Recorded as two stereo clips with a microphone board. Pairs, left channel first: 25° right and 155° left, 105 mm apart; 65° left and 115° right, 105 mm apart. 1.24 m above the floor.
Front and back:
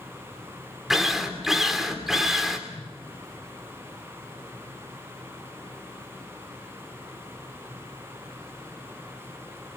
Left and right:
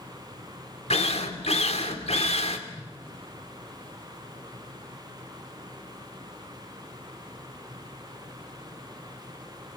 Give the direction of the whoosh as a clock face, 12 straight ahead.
1 o'clock.